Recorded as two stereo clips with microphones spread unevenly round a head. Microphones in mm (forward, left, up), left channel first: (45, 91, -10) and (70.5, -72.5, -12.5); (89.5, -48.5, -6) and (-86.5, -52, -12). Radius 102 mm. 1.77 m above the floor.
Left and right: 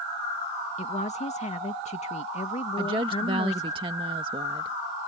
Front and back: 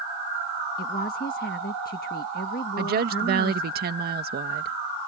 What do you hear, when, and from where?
0.8 s a woman speaking: 50° left
2.8 s a woman speaking: 145° right